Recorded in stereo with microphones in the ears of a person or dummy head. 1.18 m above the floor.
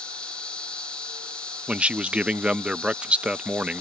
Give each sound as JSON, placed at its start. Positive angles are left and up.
{"t": 0.0, "sound": "an insect", "side_deg": 5}
{"t": 1.7, "sound": "a man speaking", "side_deg": -5}